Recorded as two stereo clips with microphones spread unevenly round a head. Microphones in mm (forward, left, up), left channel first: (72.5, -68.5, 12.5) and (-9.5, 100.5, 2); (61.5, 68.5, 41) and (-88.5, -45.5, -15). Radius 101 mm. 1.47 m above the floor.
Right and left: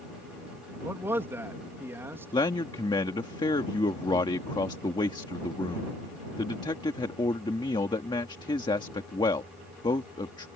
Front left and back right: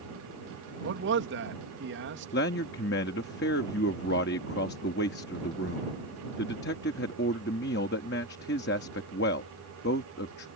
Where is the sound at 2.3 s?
5° left.